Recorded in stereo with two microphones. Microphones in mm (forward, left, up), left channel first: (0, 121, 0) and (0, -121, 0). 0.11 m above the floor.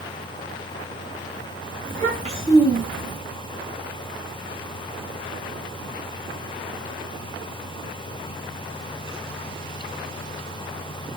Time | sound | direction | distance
1.9 | a child speaking | 40° right (ahead or behind) | 1.6 m